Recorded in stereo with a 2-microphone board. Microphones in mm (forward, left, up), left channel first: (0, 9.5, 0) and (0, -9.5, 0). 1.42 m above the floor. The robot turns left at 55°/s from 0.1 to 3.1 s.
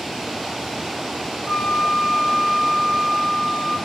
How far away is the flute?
About 6 m.